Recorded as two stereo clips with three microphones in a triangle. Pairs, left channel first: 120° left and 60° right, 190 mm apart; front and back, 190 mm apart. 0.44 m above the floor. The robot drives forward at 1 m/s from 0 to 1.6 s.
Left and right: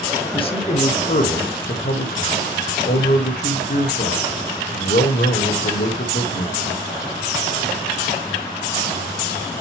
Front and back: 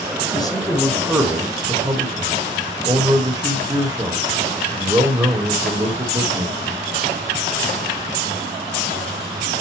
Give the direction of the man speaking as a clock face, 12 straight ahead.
10 o'clock.